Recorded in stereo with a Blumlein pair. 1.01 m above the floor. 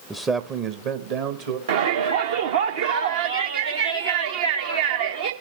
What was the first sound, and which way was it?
A man speaking, 5° right.